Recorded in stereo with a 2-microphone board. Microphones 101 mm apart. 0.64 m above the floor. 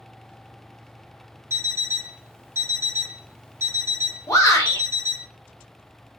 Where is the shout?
30° left (ahead or behind), 0.7 m.